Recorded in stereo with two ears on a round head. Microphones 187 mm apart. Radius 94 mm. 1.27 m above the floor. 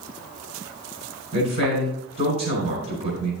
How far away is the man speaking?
About 4.5 m.